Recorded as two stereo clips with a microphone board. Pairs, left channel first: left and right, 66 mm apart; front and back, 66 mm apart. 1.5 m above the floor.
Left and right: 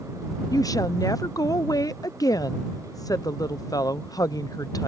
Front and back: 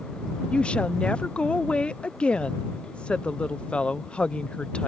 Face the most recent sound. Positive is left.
turn(degrees=70)